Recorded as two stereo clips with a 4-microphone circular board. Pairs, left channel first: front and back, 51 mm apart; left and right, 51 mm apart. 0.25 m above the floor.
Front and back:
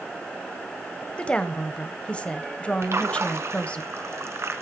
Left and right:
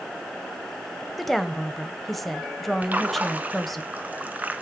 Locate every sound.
1.2 s a woman speaking: 5° left, 1.0 m
2.8 s a splash: 150° right, 1.2 m